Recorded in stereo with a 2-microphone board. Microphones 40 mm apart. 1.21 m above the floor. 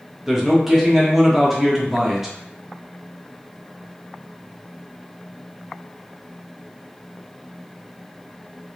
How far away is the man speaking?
About 1.1 m.